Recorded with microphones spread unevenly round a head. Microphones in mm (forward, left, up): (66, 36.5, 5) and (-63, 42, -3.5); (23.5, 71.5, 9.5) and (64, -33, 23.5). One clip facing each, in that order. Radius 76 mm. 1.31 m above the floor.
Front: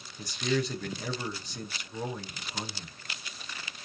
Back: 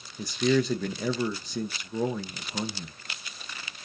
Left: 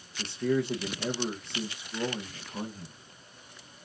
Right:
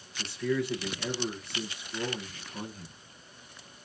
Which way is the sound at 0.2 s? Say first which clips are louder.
Back 6 dB, left 2 dB; 175° right.